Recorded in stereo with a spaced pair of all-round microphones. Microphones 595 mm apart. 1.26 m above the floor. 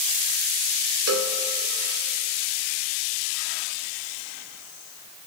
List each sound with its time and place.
1.1 s a cowbell: 30° right (ahead or behind), 0.6 m